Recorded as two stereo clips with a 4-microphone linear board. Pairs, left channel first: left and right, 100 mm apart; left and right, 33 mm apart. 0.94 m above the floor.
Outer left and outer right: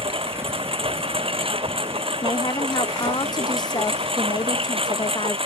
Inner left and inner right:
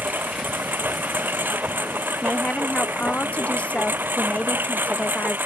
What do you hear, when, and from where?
0.0 s a lawn mower: 60° right (ahead or behind)
2.2 s a woman speaking: 40° left (ahead or behind)